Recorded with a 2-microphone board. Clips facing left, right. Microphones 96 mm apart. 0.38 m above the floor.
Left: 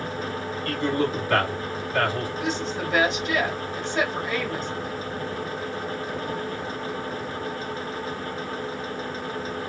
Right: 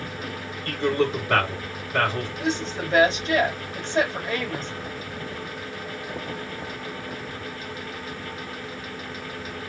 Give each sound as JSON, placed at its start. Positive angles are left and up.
{"t": 0.7, "sound": "a man speaking", "side_deg": -35, "distance_m": 3.0}
{"t": 2.4, "sound": "a woman speaking", "side_deg": -35, "distance_m": 2.5}